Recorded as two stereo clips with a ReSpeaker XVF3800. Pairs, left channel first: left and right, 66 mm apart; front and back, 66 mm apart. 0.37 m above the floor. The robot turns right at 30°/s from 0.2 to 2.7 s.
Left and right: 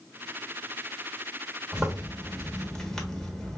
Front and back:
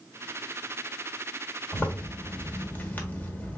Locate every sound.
1.7 s a zipper: 10° right, 0.9 m; by 3.6 s 20° left, 0.9 m